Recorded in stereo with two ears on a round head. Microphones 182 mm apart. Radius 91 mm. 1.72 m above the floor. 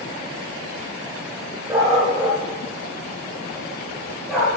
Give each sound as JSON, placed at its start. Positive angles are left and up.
{"t": 1.7, "sound": "a dog barking", "side_deg": -20, "distance_m": 5.5}